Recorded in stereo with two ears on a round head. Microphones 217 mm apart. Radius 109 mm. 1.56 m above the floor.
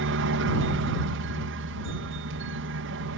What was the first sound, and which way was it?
A helicopter, 55° right (ahead or behind).